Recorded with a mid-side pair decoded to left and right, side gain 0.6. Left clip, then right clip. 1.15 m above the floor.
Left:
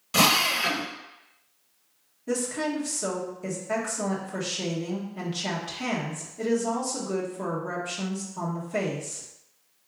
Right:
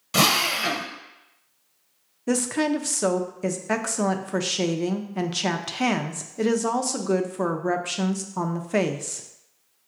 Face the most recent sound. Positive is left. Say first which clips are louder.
# right 4 dB
turn(degrees=-50)